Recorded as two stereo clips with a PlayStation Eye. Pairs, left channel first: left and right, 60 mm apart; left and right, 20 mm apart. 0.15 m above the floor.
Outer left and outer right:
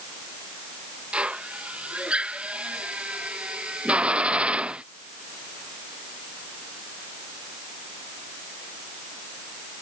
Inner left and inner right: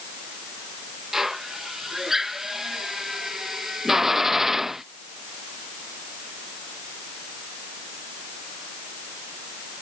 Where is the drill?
20° right (ahead or behind).